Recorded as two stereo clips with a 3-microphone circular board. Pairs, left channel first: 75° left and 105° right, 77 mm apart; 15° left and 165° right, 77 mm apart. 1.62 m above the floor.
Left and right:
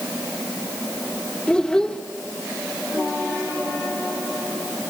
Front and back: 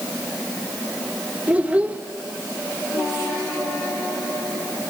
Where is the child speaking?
145° left, 0.9 m.